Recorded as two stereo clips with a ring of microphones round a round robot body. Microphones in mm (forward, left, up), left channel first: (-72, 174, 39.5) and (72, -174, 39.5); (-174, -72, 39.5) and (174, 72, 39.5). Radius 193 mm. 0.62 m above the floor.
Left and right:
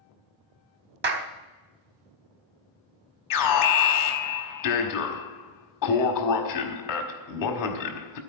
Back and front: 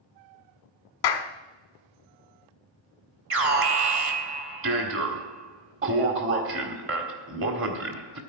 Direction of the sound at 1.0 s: 130° right.